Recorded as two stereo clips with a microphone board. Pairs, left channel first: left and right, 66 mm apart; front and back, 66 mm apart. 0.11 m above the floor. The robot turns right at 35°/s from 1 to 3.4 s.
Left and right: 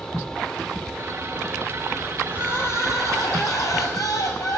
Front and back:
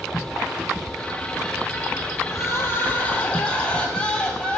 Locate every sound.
2.3 s crying: 35° left, 0.5 m; by 4.6 s 75° left, 0.5 m